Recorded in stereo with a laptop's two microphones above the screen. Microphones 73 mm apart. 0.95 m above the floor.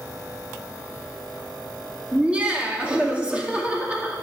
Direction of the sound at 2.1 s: 15° right (ahead or behind).